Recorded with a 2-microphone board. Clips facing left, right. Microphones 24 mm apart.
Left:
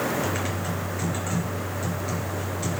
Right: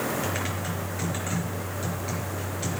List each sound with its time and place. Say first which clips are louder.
0.2 s typing on a keyboard: left 2 dB; 10° right (ahead or behind), 4.5 m